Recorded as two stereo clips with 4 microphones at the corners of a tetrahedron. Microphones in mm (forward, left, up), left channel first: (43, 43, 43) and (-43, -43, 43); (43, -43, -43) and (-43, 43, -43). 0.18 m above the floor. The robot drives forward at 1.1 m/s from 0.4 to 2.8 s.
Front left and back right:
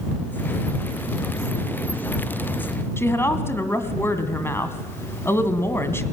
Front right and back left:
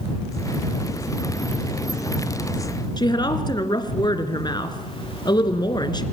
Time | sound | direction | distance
3.0 | a woman speaking | 15° right | 2 m